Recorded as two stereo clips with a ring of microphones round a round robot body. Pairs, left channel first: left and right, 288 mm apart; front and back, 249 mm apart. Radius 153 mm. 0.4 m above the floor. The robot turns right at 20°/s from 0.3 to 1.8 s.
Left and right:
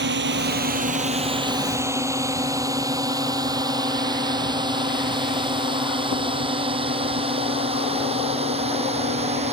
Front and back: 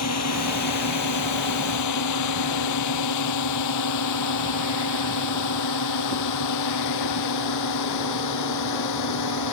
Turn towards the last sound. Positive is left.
turn(degrees=-20)